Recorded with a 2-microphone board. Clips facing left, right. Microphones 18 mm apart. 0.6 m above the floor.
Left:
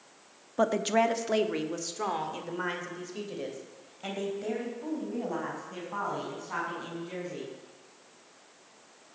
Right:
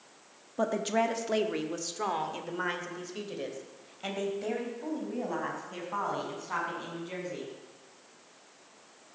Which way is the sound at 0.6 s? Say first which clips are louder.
Left 3 dB; 25° left (ahead or behind).